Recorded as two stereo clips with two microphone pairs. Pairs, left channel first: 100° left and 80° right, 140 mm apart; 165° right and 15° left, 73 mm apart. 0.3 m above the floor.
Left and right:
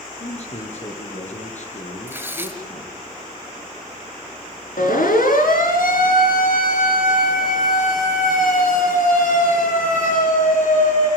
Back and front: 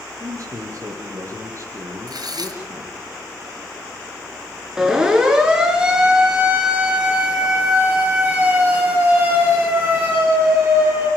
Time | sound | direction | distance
0.2 | a man speaking | 55° left | 8.5 m
2.1 | tearing paper | 5° right | 6 m
4.8 | a siren | 95° left | 6.5 m